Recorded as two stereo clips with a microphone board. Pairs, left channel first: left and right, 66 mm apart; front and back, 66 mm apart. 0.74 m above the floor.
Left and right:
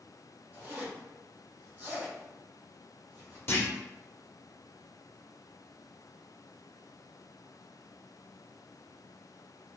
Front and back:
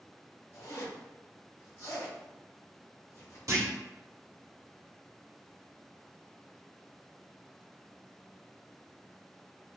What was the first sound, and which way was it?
A zipper, 25° right.